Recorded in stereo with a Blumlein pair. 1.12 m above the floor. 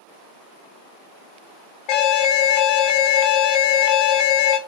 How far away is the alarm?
About 0.7 m.